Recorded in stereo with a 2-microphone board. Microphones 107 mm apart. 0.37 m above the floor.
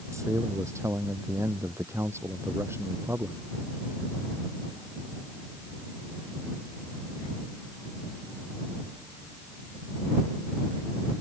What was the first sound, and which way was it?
A man speaking, 25° right (ahead or behind).